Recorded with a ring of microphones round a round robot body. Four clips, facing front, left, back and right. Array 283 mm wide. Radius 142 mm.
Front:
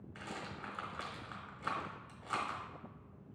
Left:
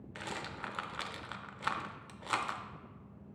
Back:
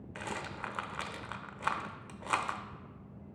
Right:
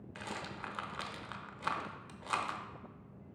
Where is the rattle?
170° left, 0.6 m.